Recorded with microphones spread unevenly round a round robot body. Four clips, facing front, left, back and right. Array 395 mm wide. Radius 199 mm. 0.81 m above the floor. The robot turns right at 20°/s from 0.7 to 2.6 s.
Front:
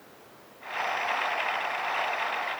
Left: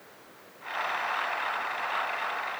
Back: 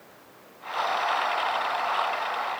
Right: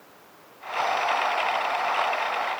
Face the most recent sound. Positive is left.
No sound to turn to.